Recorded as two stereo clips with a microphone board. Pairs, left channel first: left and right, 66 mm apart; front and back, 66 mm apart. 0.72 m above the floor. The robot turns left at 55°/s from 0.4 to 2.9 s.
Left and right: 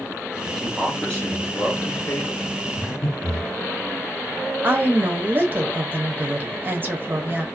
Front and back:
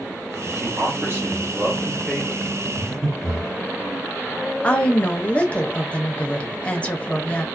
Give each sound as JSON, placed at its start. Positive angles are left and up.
{"t": 0.4, "sound": "a man speaking", "azimuth_deg": -170, "distance_m": 0.9}
{"t": 2.8, "sound": "breathing", "azimuth_deg": 105, "distance_m": 1.5}
{"t": 4.6, "sound": "a woman speaking", "azimuth_deg": -60, "distance_m": 0.6}